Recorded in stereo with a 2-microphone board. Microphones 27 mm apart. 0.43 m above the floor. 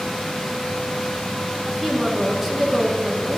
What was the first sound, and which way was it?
A woman speaking, 5° right (ahead or behind).